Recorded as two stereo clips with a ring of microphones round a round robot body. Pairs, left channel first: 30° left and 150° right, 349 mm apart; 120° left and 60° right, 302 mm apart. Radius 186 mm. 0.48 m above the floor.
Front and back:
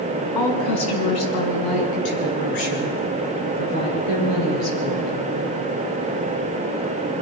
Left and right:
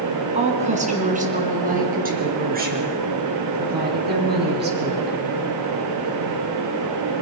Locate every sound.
0.3 s a woman speaking: 10° left, 5.5 m; by 5.2 s 5° right, 10 m